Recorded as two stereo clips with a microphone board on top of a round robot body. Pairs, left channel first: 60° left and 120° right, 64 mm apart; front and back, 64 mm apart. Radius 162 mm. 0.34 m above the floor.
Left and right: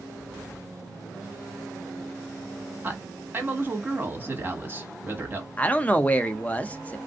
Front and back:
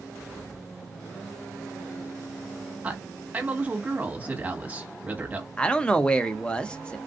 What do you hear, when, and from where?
2.8 s a man speaking: 140° right, 1.7 m
5.6 s a man speaking: 45° left, 0.8 m